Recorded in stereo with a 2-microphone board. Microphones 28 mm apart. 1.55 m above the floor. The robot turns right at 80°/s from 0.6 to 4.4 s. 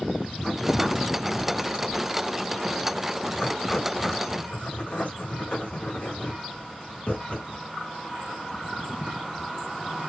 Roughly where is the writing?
Centre.